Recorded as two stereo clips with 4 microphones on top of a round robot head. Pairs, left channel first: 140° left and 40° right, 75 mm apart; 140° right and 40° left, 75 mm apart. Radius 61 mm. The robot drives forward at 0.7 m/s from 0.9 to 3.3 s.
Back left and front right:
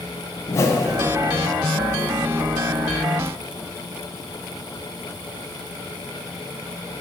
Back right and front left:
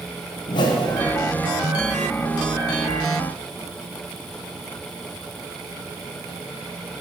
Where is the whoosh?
165° right, 0.7 m.